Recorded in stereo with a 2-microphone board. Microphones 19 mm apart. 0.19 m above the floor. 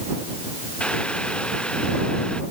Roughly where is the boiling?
Left.